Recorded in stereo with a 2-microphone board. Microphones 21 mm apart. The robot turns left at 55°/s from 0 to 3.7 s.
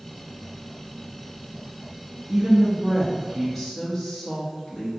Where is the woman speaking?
110° right, 0.7 m; by 4.9 s 175° left, 0.7 m.